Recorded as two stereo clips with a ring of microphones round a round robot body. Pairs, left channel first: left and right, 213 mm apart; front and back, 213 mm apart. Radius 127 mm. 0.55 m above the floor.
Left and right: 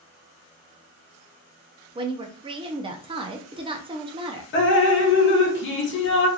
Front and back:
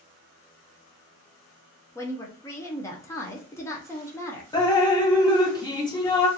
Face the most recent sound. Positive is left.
turn(degrees=70)